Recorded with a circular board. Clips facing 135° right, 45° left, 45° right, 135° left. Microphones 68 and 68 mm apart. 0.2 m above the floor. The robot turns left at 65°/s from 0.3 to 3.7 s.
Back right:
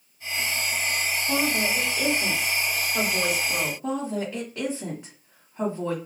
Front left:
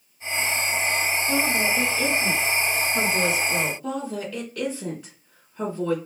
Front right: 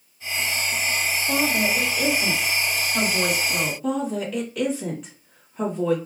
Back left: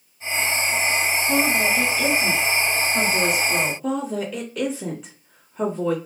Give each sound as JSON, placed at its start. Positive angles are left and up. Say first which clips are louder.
{"t": 1.3, "sound": "a woman speaking", "louder": "even, back left 1 dB", "azimuth_deg": -5, "distance_m": 1.4}
{"t": 3.8, "sound": "a woman speaking", "louder": "back right 1 dB, even", "azimuth_deg": -140, "distance_m": 1.1}